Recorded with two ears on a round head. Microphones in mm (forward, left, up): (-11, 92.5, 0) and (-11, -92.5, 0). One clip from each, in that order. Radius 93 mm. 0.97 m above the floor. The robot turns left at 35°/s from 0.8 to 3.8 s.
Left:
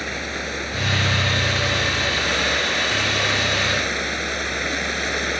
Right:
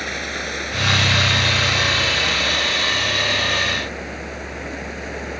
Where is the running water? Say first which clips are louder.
Right 1 dB; 165° right; by 5.4 s 90° left.